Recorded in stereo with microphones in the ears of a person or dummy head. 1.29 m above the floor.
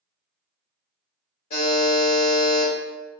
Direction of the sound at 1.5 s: 45° left (ahead or behind).